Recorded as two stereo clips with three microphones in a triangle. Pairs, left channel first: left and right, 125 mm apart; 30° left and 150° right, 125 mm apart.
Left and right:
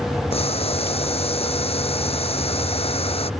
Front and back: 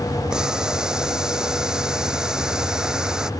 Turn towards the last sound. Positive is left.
turn(degrees=125)